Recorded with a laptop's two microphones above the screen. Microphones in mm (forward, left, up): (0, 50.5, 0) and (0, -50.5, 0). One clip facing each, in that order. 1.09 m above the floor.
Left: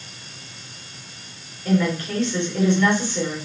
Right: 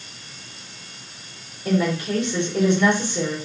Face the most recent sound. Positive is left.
turn(degrees=-20)  # may be behind; listen again after turning